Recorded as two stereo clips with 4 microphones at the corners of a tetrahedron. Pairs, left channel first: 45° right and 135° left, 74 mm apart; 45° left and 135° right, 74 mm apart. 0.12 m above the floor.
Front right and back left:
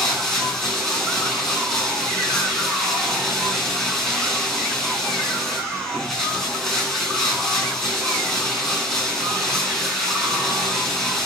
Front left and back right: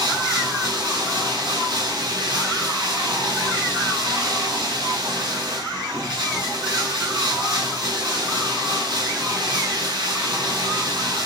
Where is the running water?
130° right, 6 m.